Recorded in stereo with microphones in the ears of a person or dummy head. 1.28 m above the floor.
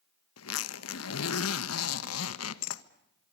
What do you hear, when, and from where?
0.4 s a zipper: 80° left, 1.3 m